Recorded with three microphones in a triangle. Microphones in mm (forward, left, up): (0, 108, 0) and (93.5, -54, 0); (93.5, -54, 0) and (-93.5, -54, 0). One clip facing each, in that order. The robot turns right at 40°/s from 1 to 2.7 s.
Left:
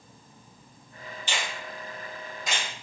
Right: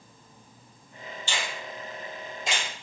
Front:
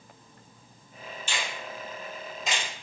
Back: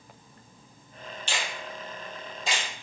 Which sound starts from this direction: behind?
A finger snap, at 1.3 s.